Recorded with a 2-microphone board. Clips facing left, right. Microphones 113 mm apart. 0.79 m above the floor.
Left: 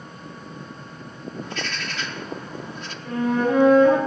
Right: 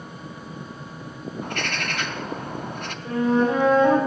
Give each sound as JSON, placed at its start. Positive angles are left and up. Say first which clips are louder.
{"t": 1.4, "sound": "a bird", "louder": "right 4 dB", "side_deg": -55, "distance_m": 0.6}
{"t": 3.0, "sound": "a flute", "louder": "right 1 dB", "side_deg": -20, "distance_m": 5.0}